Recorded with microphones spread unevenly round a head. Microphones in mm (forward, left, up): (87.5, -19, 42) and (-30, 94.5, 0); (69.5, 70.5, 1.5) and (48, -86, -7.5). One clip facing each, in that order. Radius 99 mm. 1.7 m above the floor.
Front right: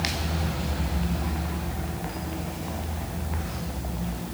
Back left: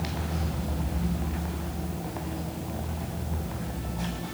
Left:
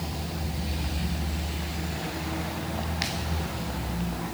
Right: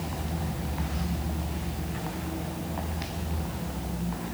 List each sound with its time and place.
Only background noise.